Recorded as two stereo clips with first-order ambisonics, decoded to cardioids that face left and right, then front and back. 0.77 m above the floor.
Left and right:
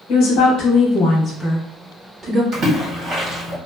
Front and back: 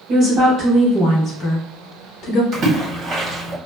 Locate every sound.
0.1 s a woman speaking: 115° left, 0.9 m; by 2.4 s 30° right, 1.0 m
2.5 s a splash: 135° right, 1.3 m